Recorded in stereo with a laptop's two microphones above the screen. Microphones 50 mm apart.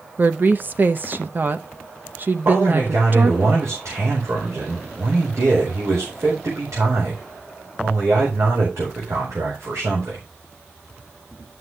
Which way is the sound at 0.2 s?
40° right (ahead or behind).